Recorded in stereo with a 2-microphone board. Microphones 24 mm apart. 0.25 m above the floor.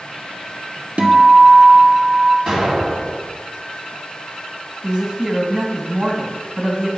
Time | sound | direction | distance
1.0 | a guitar | 75° right (ahead or behind) | 1.0 m
2.5 | an explosion | 40° right (ahead or behind) | 2.0 m
4.8 | a woman speaking | 40° right (ahead or behind) | 2 m